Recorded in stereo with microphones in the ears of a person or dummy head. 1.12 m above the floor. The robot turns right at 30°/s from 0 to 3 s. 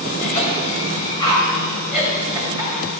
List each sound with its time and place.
0.2 s a cough: 55° left (ahead or behind), 3 m; by 2.8 s 25° right (ahead or behind), 3 m